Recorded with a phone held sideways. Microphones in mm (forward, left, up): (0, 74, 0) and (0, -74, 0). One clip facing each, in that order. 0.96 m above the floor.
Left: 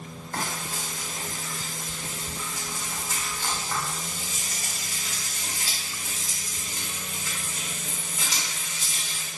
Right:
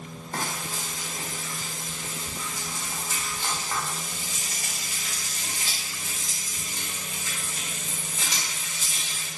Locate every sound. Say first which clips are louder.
0.3 s frying: even; 20° right (ahead or behind), 1.4 m